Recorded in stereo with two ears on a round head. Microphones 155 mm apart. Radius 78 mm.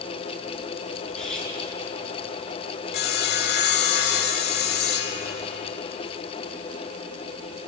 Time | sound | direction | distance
1.1 | cutlery clinking | 5° left (ahead or behind) | 5 m
2.9 | sawing | 60° left (ahead or behind) | 2.0 m